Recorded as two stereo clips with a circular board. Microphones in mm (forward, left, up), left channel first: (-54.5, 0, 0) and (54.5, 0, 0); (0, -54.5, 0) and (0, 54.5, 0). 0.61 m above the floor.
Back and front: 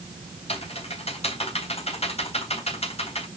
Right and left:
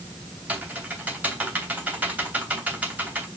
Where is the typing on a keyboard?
165° left, 3 m.